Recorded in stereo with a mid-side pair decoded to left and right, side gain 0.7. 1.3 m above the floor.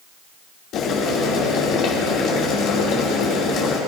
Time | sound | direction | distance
0.7 | boiling | 55° left | 2.5 m